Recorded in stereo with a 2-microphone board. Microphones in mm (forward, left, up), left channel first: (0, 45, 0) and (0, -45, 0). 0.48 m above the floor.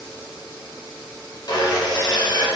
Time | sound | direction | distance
1.5 | sawing | 55° left (ahead or behind) | 1.9 m